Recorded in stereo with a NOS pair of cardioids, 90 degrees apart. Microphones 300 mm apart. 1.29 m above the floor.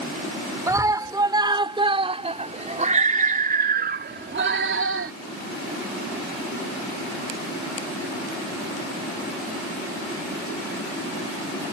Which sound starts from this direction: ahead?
A scream, at 0.7 s.